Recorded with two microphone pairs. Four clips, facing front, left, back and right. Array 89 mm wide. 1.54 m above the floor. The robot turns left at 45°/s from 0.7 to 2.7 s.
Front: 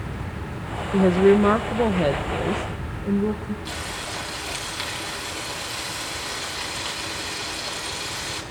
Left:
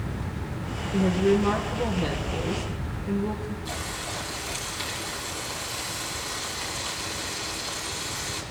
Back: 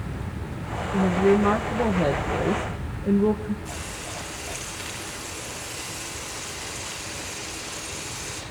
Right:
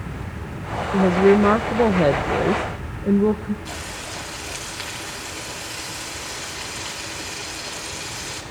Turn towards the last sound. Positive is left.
turn(degrees=-30)